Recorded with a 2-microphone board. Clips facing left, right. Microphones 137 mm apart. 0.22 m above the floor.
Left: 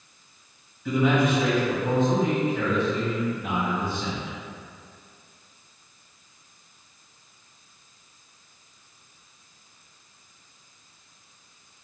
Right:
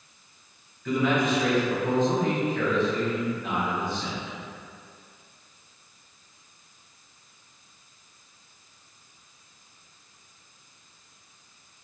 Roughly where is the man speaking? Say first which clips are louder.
Left 2 dB; centre.